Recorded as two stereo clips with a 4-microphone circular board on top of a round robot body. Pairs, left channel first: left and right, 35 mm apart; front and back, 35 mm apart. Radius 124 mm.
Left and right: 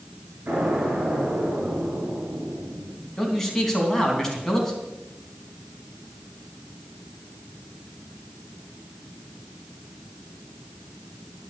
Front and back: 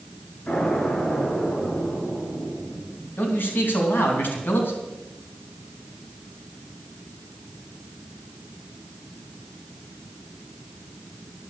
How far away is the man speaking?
About 3.5 m.